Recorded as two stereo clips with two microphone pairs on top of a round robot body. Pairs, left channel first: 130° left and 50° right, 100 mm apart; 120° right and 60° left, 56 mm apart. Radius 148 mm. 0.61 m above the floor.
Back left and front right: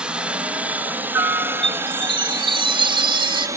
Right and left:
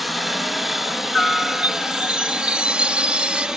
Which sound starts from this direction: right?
A helicopter, at 0.0 s.